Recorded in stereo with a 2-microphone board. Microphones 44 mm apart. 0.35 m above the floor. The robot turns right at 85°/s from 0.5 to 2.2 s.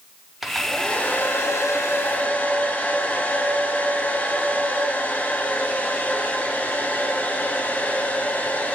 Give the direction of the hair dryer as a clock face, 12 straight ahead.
12 o'clock.